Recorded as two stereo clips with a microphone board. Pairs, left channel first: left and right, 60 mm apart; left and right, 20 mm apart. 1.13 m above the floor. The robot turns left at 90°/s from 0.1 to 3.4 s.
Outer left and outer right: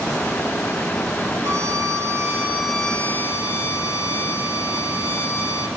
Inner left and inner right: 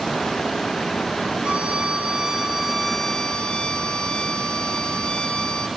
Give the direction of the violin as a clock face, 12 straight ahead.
2 o'clock.